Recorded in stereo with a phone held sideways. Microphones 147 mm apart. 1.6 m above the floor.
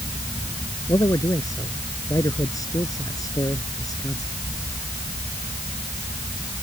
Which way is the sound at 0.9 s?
25° left (ahead or behind).